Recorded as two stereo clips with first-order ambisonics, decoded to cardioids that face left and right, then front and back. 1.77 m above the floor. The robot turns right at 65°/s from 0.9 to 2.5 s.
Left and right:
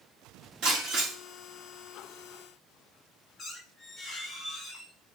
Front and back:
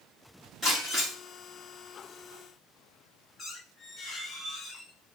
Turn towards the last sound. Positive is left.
turn(degrees=45)